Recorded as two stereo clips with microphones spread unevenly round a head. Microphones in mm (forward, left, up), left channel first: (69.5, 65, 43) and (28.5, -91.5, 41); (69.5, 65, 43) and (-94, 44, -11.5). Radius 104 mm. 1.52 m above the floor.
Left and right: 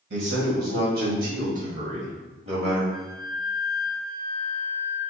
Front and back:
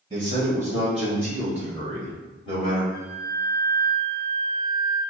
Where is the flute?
35° right, 1.8 m.